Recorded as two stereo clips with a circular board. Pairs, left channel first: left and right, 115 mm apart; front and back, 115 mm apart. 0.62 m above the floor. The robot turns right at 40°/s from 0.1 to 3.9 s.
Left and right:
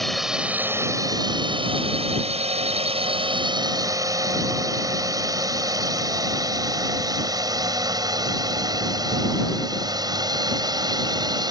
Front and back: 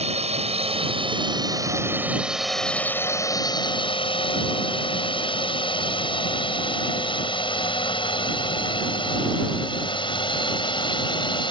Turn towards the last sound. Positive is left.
turn(degrees=-40)